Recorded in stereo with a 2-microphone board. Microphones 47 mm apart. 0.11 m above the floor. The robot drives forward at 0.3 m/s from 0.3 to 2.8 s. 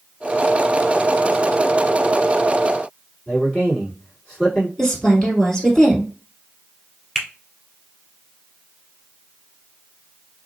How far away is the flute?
No flute in this recording.